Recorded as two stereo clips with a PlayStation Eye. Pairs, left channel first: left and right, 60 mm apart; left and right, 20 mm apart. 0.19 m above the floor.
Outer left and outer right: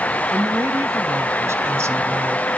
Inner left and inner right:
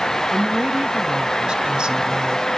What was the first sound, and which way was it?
A woman speaking, 50° right (ahead or behind).